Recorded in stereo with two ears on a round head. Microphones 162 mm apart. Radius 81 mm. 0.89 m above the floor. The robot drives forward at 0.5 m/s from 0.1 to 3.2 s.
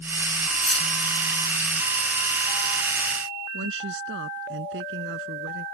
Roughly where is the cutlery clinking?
Centre.